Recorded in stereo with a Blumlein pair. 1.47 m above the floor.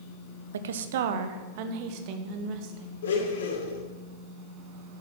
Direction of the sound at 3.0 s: 60° left.